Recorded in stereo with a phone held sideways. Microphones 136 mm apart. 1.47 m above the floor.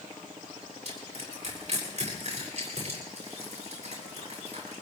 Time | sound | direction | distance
0.8 | crushing | 50° right (ahead or behind) | 7 m